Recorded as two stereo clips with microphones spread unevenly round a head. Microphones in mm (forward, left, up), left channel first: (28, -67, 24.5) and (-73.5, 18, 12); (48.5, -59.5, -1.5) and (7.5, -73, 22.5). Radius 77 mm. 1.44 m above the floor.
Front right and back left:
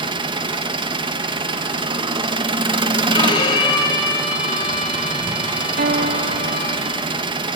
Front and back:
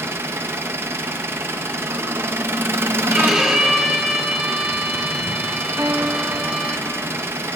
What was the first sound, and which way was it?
An engine running, 165° right.